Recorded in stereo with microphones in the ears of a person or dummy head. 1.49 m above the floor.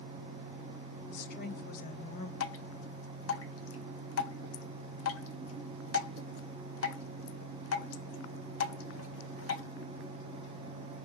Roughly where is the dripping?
Left.